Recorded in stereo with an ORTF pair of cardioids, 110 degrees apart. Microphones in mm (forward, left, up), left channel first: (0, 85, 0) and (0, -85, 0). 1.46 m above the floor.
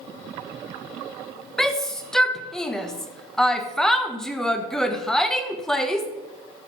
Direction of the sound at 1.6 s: 5° left.